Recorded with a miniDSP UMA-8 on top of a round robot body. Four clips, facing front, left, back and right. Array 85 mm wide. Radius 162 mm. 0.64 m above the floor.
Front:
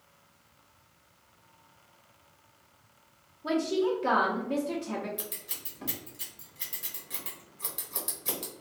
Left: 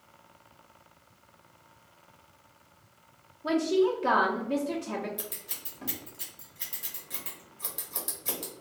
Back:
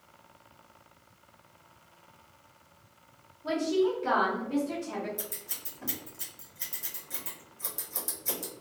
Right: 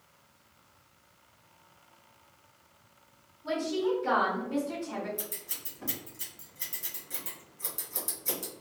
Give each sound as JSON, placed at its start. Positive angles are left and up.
{"t": 3.4, "sound": "a woman speaking", "azimuth_deg": 55, "distance_m": 0.8}
{"t": 5.2, "sound": "scissors", "azimuth_deg": 35, "distance_m": 1.4}